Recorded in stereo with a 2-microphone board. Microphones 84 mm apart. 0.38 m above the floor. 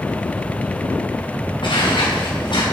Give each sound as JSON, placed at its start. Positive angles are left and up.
{"t": 1.6, "sound": "footsteps", "side_deg": 75, "distance_m": 2.5}